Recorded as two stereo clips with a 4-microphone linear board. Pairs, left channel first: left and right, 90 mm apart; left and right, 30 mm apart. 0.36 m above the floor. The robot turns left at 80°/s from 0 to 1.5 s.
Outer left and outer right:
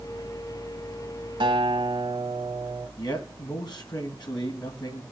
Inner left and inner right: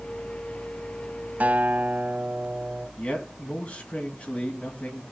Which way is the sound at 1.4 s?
60° right (ahead or behind).